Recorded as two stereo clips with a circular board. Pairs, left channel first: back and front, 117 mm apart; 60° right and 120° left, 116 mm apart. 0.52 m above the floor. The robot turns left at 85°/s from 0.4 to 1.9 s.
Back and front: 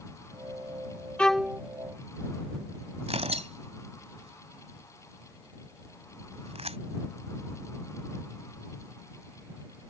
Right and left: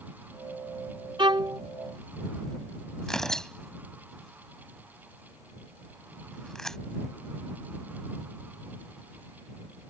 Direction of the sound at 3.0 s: 25° left.